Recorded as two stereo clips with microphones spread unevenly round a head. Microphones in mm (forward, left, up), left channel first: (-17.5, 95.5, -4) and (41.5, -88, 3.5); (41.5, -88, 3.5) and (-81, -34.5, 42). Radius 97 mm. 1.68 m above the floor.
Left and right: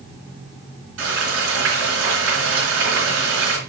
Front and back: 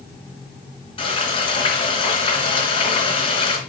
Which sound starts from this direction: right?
Frying, at 1.0 s.